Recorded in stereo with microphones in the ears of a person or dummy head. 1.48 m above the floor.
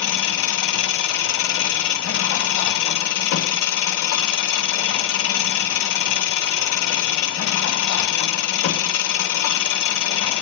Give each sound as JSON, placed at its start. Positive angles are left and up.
{"t": 0.0, "sound": "an engine running", "side_deg": 65, "distance_m": 2.0}